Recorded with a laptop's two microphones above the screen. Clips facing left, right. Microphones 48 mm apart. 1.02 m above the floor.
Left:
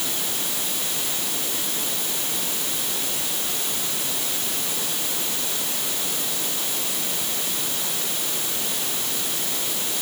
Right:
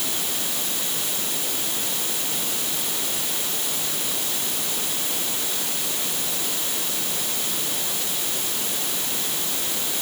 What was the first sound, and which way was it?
Only background noise.